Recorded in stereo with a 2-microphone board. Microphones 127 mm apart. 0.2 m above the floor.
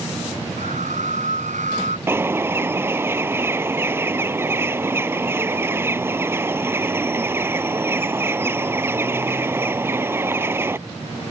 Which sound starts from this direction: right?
A scream, at 0.6 s.